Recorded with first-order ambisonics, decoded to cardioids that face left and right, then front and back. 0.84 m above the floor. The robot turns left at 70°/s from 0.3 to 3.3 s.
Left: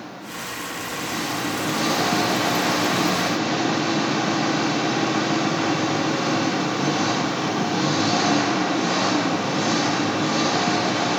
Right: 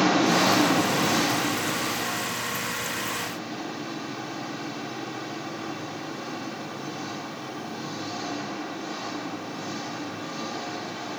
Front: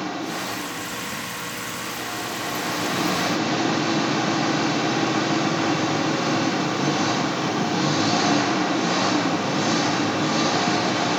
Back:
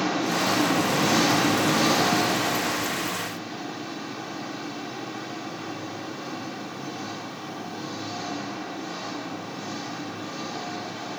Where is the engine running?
105° right, 0.9 m; by 11.2 s 45° left, 0.9 m.